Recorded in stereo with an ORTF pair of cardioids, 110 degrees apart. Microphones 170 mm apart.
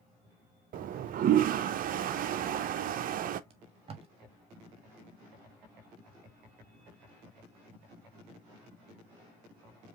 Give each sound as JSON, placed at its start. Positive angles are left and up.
{"t": 0.7, "sound": "a toilet flushing", "azimuth_deg": -55, "distance_m": 0.6}
{"t": 3.5, "sound": "tape being pulled", "azimuth_deg": -35, "distance_m": 1.2}